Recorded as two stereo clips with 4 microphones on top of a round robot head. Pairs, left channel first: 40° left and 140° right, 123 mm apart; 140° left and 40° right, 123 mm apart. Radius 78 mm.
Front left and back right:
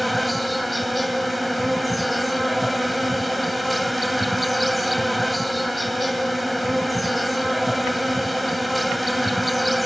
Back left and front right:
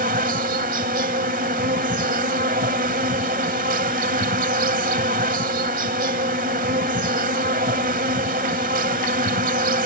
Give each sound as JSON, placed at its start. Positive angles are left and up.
{"t": 0.0, "sound": "an insect", "azimuth_deg": -50}